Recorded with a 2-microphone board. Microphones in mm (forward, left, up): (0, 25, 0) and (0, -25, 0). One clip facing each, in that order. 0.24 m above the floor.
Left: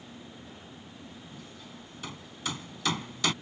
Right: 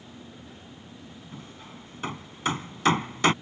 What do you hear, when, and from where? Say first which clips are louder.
1.3 s hammering: right 3 dB; 40° right (ahead or behind)